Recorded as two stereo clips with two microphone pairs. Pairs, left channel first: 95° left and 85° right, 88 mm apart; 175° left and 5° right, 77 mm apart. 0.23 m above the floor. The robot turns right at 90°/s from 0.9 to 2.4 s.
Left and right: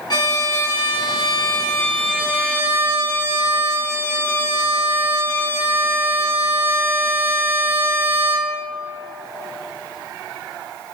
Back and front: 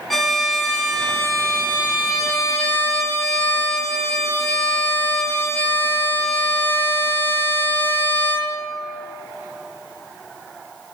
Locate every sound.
0.1 s a violin: 85° left, 1.5 m; by 8.7 s 140° right, 1.5 m